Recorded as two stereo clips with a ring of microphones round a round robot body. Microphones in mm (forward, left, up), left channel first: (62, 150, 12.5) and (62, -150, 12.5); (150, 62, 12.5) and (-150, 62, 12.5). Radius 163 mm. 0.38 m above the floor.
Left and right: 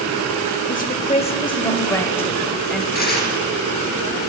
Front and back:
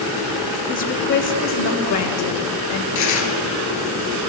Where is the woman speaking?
50° left, 1.2 m; by 2.9 s straight ahead, 2.0 m.